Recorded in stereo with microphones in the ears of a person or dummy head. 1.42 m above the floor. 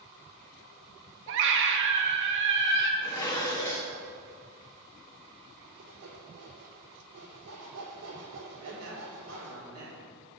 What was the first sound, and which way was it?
A scream, 65° right (ahead or behind).